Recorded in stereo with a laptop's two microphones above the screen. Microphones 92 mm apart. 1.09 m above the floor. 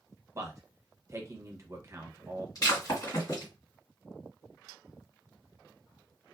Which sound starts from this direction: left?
Breaking glass, at 2.5 s.